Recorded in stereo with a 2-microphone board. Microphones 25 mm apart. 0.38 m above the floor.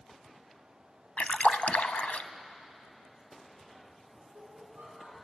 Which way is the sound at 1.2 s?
80° left.